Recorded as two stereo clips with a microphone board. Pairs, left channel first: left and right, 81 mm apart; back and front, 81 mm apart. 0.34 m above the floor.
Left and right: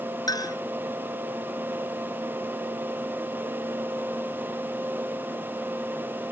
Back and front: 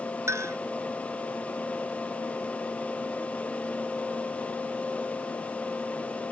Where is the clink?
55° left.